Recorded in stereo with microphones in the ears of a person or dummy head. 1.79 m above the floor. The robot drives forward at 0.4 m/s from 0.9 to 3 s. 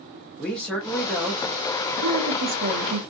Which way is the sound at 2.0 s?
70° right (ahead or behind).